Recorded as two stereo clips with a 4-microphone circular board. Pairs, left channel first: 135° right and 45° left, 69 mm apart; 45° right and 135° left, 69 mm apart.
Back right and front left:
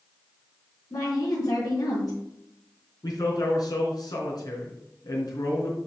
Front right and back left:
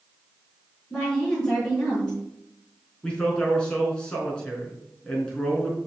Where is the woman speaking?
125° right, 4 m.